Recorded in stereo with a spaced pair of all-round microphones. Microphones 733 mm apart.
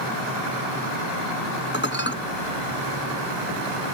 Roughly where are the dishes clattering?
Centre.